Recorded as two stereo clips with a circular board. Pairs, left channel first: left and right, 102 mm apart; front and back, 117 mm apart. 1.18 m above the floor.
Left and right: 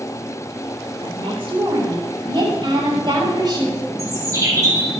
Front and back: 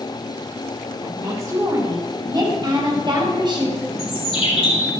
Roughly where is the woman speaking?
Behind right.